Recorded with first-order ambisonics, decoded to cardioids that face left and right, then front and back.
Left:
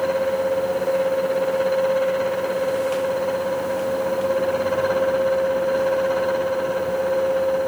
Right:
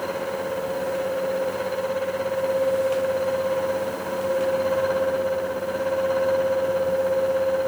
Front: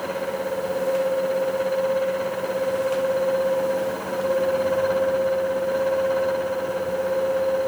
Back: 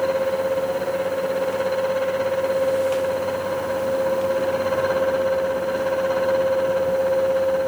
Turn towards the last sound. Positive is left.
No sound to turn to.